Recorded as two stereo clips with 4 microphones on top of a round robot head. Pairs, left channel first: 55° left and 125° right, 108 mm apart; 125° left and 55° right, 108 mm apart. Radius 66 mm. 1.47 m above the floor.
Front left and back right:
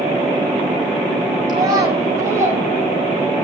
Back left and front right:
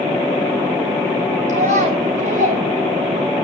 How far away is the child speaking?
About 5 m.